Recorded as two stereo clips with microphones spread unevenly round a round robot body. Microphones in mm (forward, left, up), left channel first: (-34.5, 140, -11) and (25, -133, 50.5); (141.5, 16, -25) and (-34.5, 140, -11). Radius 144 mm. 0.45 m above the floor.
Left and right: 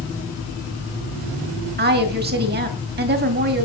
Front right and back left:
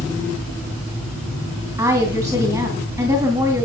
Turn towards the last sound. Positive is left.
turn(degrees=-135)